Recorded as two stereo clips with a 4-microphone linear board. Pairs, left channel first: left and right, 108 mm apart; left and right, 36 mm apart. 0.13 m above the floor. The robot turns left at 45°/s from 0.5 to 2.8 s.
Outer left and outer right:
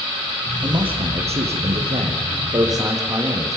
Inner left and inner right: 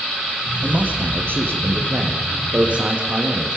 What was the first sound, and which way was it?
A man speaking, 50° right.